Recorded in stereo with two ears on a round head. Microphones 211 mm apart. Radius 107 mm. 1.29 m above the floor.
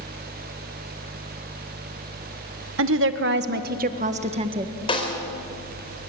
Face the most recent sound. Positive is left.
turn(degrees=20)  # may be behind; listen again after turning